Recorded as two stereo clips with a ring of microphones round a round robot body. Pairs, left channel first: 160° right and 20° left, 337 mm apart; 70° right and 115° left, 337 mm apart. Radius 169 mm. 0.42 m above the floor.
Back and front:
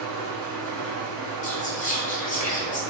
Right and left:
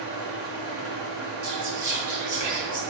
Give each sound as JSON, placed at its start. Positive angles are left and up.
{"t": 0.0, "sound": "an engine running", "azimuth_deg": 60, "distance_m": 2.5}
{"t": 1.4, "sound": "whispering", "azimuth_deg": 135, "distance_m": 1.4}